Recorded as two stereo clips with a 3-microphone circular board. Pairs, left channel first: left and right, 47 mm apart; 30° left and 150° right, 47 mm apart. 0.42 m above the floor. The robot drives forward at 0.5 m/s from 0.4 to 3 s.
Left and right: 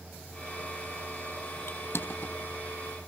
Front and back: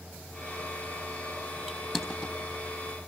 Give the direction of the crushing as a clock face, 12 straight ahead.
8 o'clock.